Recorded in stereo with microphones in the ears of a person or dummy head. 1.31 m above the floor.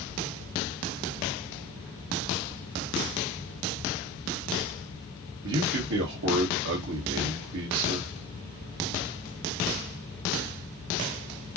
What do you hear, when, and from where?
5.4 s a man speaking: 60° right (ahead or behind), 1.4 m